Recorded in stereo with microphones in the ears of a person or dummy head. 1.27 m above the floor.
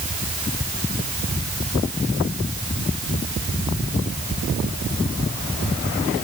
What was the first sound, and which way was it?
Only background noise.